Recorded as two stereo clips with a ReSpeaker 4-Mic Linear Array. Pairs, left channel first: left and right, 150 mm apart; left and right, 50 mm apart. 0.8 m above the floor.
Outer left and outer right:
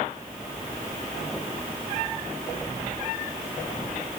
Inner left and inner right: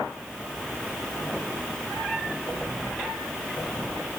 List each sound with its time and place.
Only background noise.